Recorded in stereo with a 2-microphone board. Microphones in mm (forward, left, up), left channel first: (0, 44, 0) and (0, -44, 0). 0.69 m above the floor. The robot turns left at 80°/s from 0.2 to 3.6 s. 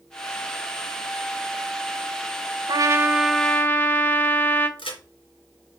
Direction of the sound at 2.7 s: 130° right.